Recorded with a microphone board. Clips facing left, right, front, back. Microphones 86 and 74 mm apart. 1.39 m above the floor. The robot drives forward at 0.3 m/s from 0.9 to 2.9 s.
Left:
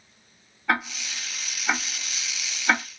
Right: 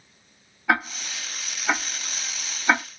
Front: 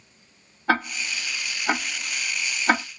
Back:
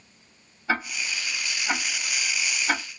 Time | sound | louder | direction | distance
0.7 | ticking | right 2 dB, front 4 dB | 5° right | 1.1 m